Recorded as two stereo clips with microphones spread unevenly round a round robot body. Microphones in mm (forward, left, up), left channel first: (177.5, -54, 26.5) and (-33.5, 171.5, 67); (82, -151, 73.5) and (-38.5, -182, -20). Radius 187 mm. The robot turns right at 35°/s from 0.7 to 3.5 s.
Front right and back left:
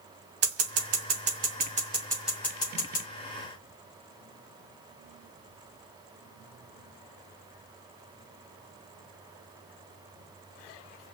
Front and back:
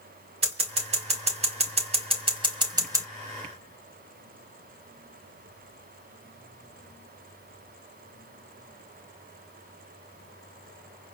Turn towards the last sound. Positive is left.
turn(degrees=-95)